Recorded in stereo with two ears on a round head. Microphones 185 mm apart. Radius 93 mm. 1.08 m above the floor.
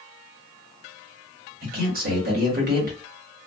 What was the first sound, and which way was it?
A man speaking, 45° right (ahead or behind).